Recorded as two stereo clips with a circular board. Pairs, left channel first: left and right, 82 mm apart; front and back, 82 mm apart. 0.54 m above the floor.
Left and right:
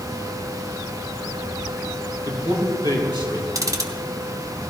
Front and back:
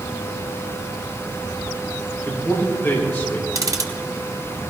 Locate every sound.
2.2 s a man speaking: 70° right, 6 m
3.5 s ticking: 135° right, 1.5 m